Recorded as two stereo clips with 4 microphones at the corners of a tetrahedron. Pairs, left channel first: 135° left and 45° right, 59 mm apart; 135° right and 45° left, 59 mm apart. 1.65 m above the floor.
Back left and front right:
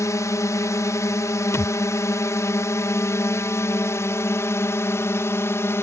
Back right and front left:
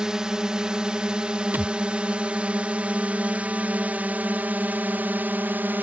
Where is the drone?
120° left; by 5.8 s 100° left.